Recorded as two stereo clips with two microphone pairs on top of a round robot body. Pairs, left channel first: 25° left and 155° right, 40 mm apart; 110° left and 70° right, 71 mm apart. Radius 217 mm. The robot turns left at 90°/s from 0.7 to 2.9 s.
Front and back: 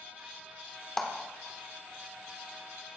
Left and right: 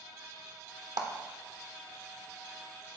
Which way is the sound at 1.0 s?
45° right.